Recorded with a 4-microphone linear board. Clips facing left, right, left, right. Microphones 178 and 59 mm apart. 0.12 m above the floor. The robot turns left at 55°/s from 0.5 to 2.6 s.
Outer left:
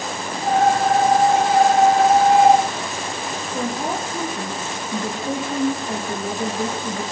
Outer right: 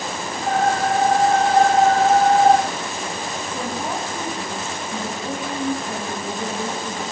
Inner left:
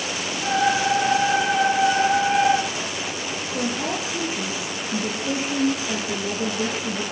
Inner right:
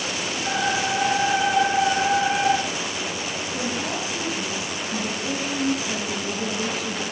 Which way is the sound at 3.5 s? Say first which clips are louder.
Outer left 3 dB, inner left 3 dB; 25° left (ahead or behind).